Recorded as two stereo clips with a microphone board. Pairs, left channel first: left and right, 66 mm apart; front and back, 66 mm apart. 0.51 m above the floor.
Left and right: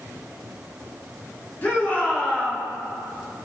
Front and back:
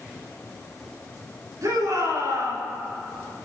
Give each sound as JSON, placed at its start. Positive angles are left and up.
{"t": 1.6, "sound": "a shout", "azimuth_deg": 150, "distance_m": 5.5}